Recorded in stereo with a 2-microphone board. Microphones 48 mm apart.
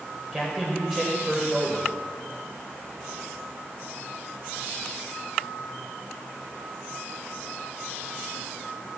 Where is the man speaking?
5° right (ahead or behind), 1.8 m.